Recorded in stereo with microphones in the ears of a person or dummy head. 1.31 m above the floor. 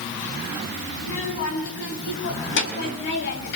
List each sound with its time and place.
0.9 s a child speaking: 80° left, 7.5 m; by 3.6 s 65° left (ahead or behind), 5.5 m